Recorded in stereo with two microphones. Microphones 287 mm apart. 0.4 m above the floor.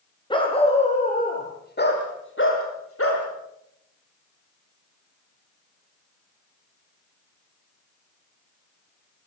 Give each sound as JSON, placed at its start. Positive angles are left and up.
{"t": 0.3, "sound": "a dog barking", "side_deg": 15, "distance_m": 6.5}